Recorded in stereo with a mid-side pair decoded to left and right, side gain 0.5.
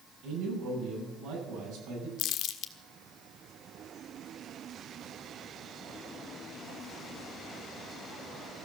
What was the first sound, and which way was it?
A man speaking, 65° right.